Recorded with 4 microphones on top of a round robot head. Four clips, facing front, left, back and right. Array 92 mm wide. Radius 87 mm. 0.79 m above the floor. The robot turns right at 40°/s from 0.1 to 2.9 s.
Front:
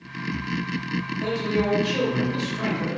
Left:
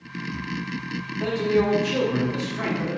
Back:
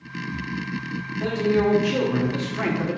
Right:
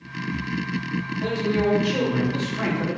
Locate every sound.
1.2 s a man speaking: 120° left, 1.6 m; by 3.0 s 170° right, 1.6 m